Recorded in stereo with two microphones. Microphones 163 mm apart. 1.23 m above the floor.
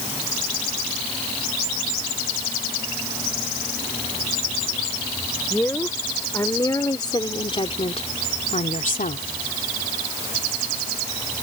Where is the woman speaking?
10° left (ahead or behind); by 9.3 s 60° left (ahead or behind).